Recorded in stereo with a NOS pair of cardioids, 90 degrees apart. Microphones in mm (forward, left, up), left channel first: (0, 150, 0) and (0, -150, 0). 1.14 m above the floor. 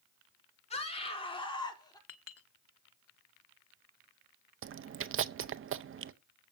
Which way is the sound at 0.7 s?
20° left.